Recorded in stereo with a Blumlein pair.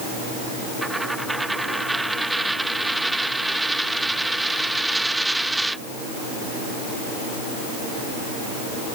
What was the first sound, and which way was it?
A dropped coin, 5° right.